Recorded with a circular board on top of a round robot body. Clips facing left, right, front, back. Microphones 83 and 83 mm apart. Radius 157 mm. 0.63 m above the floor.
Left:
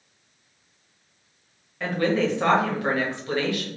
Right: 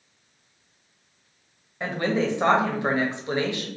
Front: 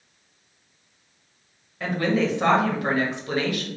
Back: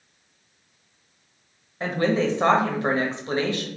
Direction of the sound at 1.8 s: 145° right.